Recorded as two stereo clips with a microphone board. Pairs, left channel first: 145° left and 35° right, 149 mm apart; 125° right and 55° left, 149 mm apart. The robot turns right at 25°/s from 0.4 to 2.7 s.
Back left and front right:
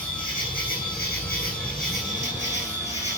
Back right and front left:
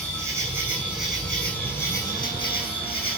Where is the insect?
130° left, 5.5 m; by 3.2 s 175° right, 5.5 m.